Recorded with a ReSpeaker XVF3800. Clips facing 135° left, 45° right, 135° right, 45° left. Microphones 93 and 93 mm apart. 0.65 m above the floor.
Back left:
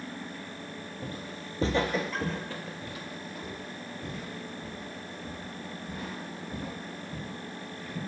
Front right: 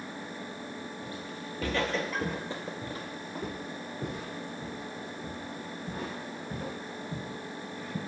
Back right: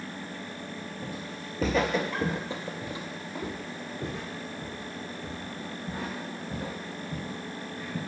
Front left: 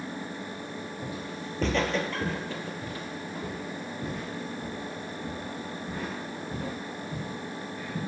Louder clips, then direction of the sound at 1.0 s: Even, front left 2 dB; 130° left.